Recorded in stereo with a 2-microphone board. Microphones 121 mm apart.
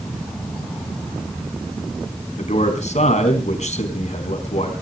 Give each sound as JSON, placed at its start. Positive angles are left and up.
{"t": 2.4, "sound": "a man speaking", "side_deg": 70, "distance_m": 4.5}